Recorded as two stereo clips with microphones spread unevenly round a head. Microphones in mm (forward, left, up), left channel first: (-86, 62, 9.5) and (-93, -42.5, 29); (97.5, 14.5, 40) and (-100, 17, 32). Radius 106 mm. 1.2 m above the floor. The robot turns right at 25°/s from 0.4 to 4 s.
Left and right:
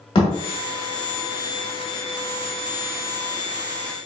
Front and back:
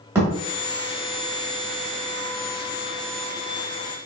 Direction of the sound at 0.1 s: 105° left.